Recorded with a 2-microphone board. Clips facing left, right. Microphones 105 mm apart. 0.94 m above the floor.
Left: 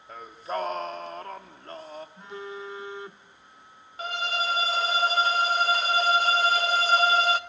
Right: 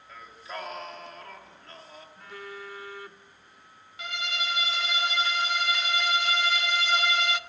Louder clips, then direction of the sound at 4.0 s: Left 5 dB; 40° left (ahead or behind).